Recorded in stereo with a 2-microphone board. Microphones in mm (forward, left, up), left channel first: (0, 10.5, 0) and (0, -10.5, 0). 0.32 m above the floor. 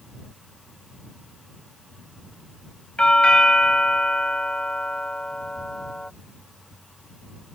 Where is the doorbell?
50° left (ahead or behind).